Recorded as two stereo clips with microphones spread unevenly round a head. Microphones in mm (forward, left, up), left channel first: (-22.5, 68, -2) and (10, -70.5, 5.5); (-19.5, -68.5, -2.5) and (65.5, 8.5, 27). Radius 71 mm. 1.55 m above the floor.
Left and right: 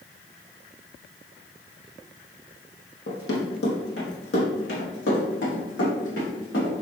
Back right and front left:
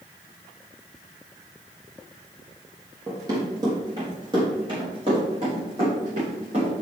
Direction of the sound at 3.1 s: 100° left.